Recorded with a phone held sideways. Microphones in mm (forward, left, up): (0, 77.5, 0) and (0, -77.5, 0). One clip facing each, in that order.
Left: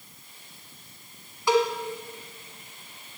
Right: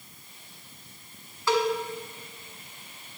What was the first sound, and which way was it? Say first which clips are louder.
A cowbell: left 2 dB; 15° left (ahead or behind).